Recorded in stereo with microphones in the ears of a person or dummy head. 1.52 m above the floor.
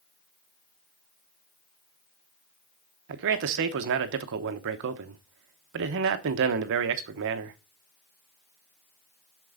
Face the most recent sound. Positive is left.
turn(degrees=-65)  # may be behind; listen again after turning